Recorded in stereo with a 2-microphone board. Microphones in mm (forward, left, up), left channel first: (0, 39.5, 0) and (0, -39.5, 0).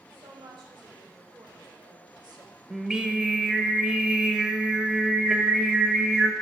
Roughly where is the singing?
Centre.